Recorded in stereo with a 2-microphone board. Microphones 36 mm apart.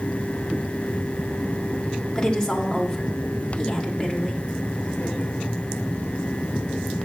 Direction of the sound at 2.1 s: 15° left (ahead or behind).